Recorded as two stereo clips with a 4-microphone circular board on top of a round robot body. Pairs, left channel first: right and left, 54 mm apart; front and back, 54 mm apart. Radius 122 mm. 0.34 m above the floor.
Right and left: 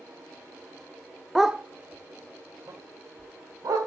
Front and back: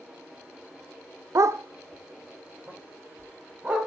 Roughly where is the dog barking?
Behind.